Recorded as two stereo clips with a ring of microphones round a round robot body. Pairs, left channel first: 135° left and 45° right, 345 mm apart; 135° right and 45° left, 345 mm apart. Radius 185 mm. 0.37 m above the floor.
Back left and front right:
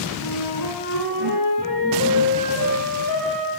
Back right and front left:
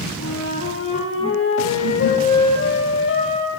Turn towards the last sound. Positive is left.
turn(degrees=170)